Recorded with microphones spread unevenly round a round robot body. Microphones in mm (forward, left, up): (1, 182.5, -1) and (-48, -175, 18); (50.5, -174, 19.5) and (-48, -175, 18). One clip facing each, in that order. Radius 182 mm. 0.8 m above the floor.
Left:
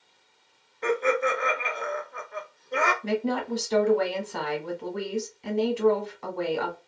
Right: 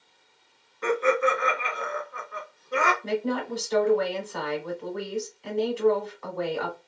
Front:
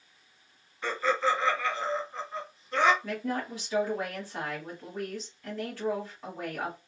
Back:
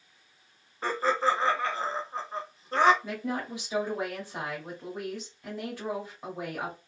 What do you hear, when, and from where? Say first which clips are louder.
0.8 s laughter: right 1 dB, back 1 dB; 170° right, 0.8 m
3.0 s a woman speaking: left 3 dB, front 1 dB; 115° left, 1.2 m